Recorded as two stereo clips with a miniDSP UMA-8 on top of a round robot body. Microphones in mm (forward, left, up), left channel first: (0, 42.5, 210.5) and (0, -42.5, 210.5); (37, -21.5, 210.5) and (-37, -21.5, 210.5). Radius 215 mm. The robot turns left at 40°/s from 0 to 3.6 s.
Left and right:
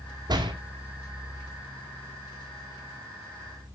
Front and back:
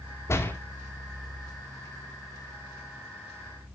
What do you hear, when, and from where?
0.3 s a door slam: 50° right, 2.5 m; by 0.5 s 60° right, 2.5 m